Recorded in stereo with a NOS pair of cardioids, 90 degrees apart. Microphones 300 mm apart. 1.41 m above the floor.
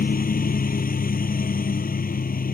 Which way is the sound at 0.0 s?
30° left.